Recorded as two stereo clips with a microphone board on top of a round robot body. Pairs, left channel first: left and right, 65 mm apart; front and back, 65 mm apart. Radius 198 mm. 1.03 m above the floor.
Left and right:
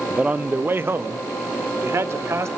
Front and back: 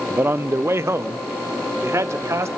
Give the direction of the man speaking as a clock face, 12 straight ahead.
5 o'clock.